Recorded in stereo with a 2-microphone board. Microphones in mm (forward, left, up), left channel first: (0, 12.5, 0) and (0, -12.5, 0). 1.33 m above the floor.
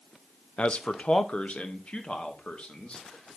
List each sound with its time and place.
0.6 s a man speaking: 50° left (ahead or behind), 0.6 m; by 3.4 s 45° left (ahead or behind), 2.5 m